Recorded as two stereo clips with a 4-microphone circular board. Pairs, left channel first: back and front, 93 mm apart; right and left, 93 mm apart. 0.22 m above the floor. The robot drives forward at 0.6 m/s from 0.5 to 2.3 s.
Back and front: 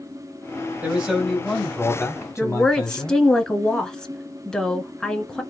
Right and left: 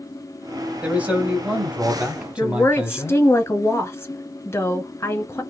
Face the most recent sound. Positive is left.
turn(degrees=-110)